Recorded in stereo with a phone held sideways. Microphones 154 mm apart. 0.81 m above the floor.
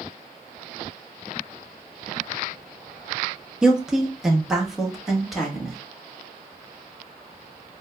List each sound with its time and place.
3.6 s a woman speaking: 5° right (ahead or behind), 0.7 m; by 5.8 s centre (ahead or behind), 1.8 m